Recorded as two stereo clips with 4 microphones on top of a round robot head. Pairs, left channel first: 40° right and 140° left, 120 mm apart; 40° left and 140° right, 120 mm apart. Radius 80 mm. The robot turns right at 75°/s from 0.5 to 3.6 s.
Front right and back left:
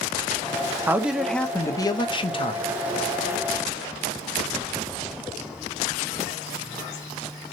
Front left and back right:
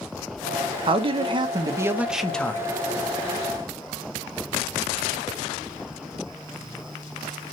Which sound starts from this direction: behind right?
A man speaking, at 0.9 s.